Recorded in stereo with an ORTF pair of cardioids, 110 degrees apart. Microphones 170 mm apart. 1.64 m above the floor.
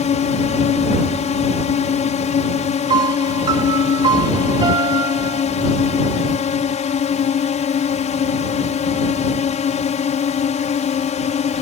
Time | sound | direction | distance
0.0 | a drone | 45° left | ?
2.9 | a piano | 25° right | ?